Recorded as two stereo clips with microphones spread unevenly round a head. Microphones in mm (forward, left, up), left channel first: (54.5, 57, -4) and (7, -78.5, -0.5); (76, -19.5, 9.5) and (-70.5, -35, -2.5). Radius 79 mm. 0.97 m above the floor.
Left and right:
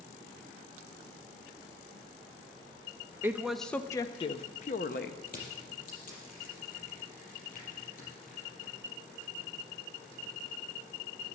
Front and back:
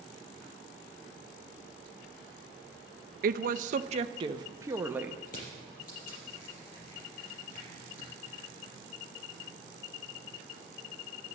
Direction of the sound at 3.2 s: 175° left.